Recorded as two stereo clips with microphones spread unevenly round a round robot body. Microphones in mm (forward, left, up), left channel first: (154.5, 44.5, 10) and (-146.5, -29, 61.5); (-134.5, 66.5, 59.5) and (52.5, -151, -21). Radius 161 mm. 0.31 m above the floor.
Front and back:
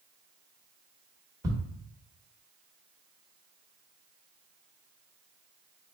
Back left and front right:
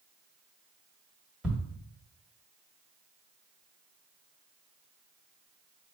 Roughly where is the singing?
I don't hear singing.